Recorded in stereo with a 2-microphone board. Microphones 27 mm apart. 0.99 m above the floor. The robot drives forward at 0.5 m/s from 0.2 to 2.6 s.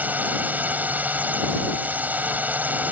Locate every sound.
0.0 s a drone: 80° right